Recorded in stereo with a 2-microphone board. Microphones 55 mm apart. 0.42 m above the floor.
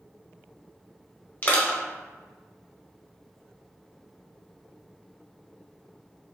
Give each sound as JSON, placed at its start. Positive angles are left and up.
{"t": 1.4, "sound": "crushing", "side_deg": 35, "distance_m": 0.6}